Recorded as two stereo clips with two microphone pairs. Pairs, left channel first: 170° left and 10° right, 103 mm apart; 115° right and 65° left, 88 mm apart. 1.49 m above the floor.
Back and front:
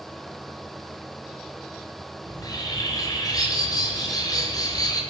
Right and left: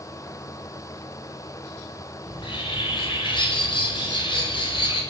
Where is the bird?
135° right, 8 m.